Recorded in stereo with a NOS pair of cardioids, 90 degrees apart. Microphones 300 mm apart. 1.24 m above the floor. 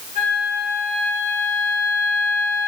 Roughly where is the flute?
Ahead left.